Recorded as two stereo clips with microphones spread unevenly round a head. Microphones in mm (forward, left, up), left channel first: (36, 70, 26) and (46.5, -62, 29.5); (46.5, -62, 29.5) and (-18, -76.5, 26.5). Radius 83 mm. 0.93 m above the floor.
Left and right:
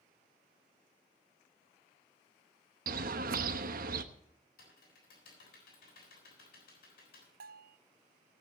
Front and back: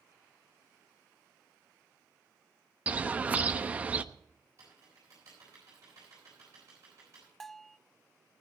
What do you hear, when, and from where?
2.9 s a bird: 100° right, 1.0 m
4.6 s typing on a keyboard: 125° left, 7 m
7.4 s a bell: 75° right, 0.6 m